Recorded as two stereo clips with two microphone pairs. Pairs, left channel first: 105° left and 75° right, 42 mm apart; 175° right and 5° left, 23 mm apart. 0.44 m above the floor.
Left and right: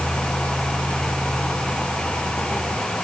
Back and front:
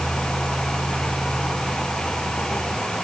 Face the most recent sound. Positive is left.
No sound to turn to.